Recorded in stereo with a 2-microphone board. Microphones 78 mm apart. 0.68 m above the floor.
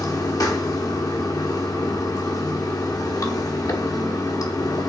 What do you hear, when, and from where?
0.0 s running water: 50° left (ahead or behind), 1.0 m